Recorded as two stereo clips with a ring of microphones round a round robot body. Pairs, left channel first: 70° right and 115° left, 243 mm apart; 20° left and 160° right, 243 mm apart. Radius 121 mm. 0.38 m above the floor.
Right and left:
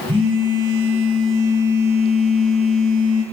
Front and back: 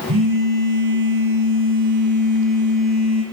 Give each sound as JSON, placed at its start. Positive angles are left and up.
{"t": 0.1, "sound": "a phone buzzing", "azimuth_deg": 180, "distance_m": 7.5}